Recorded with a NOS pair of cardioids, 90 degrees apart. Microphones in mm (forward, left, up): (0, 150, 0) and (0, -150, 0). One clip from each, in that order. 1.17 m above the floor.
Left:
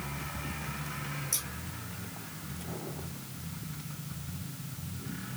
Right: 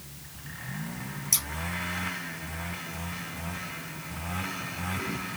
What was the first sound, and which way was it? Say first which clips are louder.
Scissors: right 8 dB; 45° right.